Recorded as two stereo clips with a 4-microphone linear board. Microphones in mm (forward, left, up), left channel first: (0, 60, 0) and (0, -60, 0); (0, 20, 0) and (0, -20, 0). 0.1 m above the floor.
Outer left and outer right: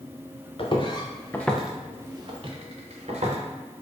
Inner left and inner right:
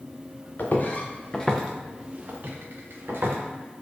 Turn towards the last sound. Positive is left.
turn(degrees=-65)  # may be behind; listen again after turning